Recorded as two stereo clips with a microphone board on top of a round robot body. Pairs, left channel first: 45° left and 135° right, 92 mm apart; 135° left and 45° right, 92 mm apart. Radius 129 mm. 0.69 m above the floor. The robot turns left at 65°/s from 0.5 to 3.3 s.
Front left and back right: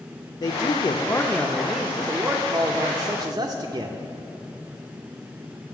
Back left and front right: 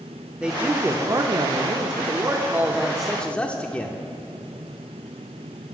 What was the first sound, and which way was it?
A man speaking, 30° left.